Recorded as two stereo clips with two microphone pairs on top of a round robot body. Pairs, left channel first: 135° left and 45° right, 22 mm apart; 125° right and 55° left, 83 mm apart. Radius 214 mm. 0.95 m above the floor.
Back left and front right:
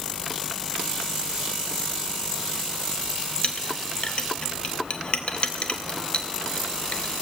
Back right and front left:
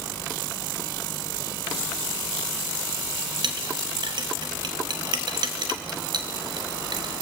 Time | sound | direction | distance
3.4 | a clink | 90° left | 0.7 m